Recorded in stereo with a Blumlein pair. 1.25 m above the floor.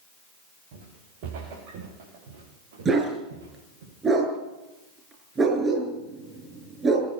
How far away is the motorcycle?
No motorcycle in this recording.